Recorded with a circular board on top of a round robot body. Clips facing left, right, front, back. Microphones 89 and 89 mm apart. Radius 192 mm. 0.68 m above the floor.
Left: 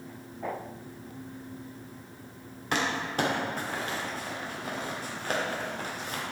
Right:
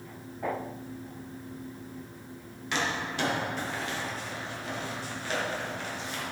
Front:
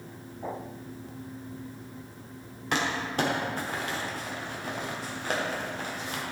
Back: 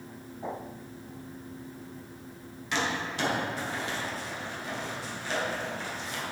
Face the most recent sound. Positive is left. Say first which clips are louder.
# left 2 dB, front 2 dB
turn(degrees=45)